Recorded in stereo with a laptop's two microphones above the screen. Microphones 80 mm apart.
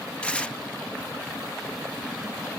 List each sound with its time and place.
0.2 s tearing paper: 15° left (ahead or behind)